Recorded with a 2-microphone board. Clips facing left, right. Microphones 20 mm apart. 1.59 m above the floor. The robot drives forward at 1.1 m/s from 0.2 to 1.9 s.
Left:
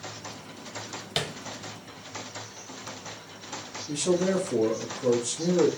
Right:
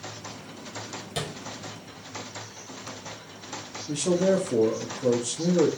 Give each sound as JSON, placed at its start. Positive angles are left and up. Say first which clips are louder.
{"t": 1.2, "sound": "tapping", "louder": "left 3 dB", "side_deg": 30, "distance_m": 1.0}
{"t": 3.9, "sound": "a man speaking", "louder": "right 2 dB", "side_deg": -25, "distance_m": 0.8}